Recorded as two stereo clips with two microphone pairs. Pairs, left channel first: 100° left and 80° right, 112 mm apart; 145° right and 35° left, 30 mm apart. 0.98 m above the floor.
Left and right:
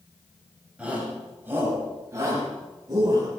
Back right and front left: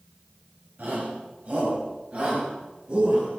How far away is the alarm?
No alarm in this recording.